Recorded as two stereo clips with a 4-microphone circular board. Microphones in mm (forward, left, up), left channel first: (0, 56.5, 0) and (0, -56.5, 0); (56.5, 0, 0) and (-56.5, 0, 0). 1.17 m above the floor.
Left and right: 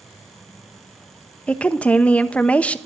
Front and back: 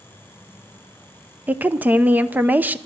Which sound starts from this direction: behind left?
A woman speaking, at 1.5 s.